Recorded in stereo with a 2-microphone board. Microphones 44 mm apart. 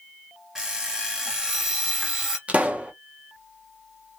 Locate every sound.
0.6 s an alarm clock: 15° right (ahead or behind), 1.2 m
2.5 s a pop: 30° right (ahead or behind), 0.7 m